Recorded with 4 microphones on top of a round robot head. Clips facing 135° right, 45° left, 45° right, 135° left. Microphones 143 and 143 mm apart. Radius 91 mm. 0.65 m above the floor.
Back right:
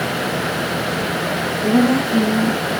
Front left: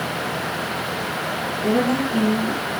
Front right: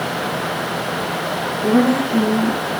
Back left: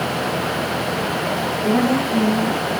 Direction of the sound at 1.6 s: 125° right.